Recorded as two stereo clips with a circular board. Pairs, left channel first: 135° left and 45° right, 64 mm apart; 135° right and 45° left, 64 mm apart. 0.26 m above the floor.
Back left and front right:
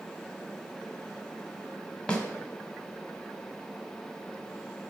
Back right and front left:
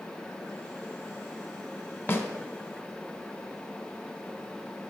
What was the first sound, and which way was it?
A snare drum, 155° right.